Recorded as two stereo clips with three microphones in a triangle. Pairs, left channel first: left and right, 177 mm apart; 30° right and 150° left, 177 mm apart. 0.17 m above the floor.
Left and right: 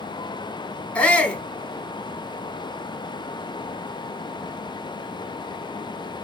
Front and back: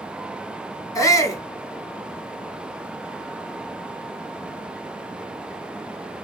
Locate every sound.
0.9 s a shout: 15° left, 1.1 m